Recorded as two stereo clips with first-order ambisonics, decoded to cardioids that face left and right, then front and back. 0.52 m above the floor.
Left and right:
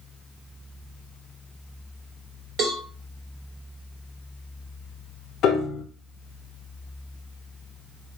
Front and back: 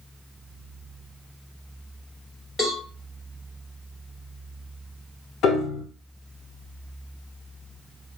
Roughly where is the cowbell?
Right.